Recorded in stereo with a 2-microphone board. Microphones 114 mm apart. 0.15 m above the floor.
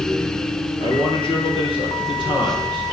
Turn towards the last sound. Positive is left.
turn(degrees=50)  # may be behind; listen again after turning